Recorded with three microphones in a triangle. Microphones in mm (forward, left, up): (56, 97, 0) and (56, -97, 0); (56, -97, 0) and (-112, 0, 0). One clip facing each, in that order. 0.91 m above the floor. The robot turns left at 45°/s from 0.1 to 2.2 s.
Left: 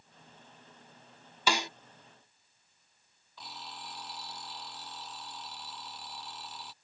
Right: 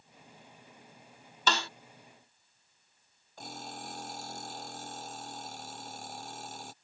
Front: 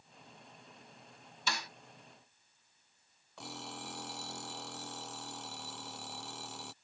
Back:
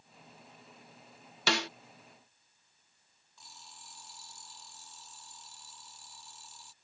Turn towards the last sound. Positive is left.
turn(degrees=-45)